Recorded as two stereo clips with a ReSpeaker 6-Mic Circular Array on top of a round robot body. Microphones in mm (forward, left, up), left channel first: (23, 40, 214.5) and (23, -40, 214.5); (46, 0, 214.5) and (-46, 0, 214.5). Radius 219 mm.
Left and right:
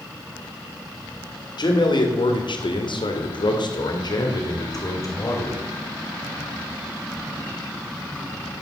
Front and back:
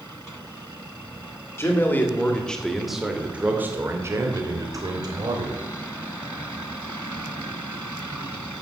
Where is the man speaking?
65° left, 2.5 m; by 5.6 s 145° left, 3 m.